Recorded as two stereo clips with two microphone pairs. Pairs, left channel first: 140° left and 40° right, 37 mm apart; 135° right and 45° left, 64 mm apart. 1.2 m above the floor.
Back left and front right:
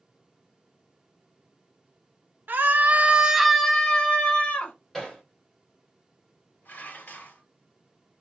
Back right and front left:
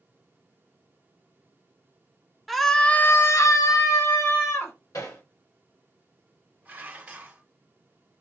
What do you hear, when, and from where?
2.5 s a scream: 45° right, 0.8 m; by 4.7 s 165° right, 1.5 m
4.9 s hammering: 140° right, 2 m
6.7 s dishes clattering: 110° left, 1.0 m